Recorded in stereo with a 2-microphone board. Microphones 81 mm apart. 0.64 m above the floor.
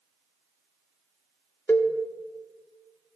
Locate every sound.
1.7 s a cowbell: 25° left (ahead or behind), 1.0 m